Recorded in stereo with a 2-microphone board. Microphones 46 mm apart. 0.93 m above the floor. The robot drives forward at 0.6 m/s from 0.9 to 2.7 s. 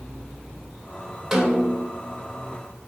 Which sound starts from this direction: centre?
A snare drum, at 1.3 s.